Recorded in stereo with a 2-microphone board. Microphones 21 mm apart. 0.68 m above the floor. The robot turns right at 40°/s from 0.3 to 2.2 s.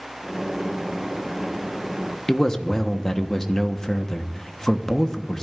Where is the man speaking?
25° left (ahead or behind), 1.1 m.